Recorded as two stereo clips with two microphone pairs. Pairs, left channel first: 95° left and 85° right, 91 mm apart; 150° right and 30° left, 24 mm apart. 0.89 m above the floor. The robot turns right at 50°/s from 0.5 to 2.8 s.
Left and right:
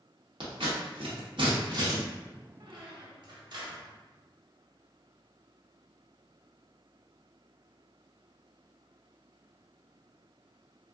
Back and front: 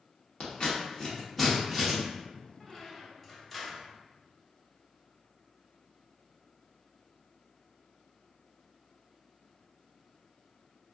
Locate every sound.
0.4 s scissors: 105° right, 0.9 m; by 2.0 s 35° right, 0.9 m
2.6 s a squeak: 70° right, 0.6 m; by 3.9 s 60° right, 0.6 m